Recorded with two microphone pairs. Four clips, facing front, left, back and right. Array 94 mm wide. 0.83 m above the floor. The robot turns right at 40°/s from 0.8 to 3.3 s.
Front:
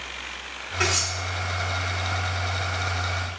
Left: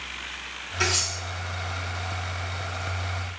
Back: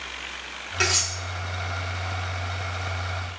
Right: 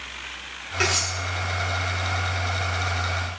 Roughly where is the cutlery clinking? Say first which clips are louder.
Right 3 dB, front 1 dB; behind right.